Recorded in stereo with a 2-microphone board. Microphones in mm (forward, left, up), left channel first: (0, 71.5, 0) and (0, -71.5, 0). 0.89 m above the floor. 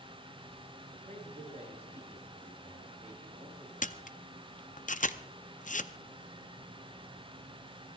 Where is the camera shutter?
60° left (ahead or behind), 0.6 m.